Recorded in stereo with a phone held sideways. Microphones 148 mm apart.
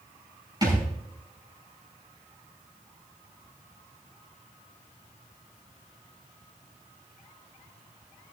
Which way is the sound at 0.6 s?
30° right (ahead or behind).